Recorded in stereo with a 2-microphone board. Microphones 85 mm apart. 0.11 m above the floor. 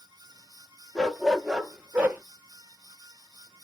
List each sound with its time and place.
0.9 s a dog barking: 5° left (ahead or behind), 1.2 m; by 2.2 s 25° right (ahead or behind), 1.2 m